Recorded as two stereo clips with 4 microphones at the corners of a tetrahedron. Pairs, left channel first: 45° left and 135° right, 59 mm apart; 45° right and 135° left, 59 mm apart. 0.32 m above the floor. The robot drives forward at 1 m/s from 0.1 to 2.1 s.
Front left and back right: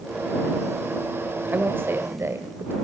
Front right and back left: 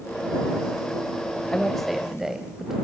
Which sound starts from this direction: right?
A woman speaking, at 1.5 s.